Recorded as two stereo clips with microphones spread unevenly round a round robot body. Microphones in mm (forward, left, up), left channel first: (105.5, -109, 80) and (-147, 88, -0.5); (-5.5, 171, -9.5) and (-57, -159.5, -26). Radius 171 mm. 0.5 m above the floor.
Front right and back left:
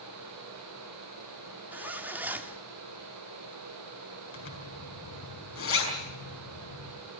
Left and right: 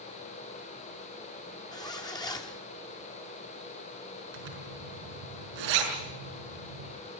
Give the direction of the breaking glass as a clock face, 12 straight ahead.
I don't hear breaking glass.